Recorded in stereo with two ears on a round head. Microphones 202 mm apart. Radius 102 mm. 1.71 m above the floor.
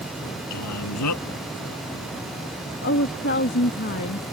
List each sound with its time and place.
0.5 s a man speaking: 90° left
2.8 s a woman speaking: 50° left (ahead or behind)